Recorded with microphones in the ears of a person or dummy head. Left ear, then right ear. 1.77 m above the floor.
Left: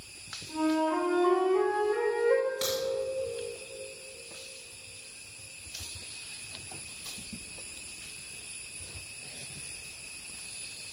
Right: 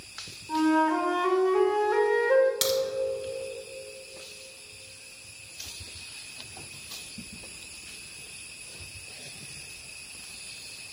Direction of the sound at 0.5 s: 40° right (ahead or behind).